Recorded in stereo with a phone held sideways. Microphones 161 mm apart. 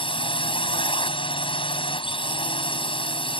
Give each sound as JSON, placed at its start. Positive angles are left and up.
{"t": 0.0, "sound": "a drone", "side_deg": 30}